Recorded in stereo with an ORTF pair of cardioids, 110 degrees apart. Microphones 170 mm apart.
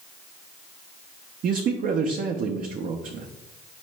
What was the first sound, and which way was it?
A man speaking, 50° right.